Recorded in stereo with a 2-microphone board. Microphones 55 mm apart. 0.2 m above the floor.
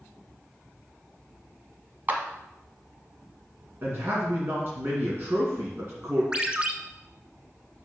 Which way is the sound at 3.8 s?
45° right (ahead or behind).